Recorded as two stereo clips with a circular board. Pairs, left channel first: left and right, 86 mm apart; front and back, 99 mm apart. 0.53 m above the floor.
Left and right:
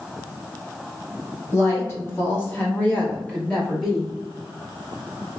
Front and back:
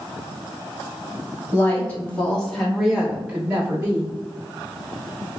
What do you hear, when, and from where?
1.5 s a woman speaking: 55° left, 1.5 m; by 4.1 s 170° left, 1.3 m